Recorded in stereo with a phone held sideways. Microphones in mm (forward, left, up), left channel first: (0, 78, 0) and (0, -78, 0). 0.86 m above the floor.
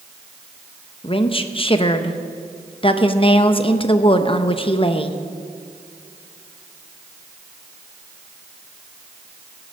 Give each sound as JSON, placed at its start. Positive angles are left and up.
{"t": 1.0, "sound": "a woman speaking", "side_deg": 35, "distance_m": 0.8}